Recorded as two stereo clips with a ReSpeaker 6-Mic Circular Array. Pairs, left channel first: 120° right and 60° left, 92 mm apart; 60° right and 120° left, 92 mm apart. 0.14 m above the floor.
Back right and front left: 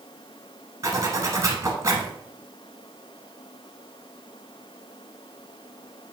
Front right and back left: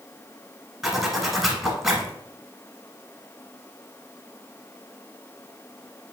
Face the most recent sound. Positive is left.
turn(degrees=40)